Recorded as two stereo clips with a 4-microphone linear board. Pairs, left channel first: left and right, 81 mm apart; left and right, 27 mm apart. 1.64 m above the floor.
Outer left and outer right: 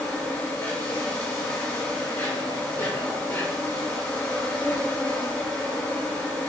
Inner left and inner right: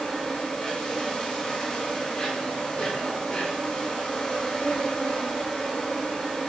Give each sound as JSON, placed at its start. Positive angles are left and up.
{"t": 0.0, "sound": "an insect", "side_deg": 20, "distance_m": 4.0}